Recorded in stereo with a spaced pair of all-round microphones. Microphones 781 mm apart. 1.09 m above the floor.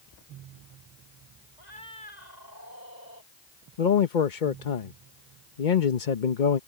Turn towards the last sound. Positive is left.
turn(degrees=75)  # may be behind; listen again after turning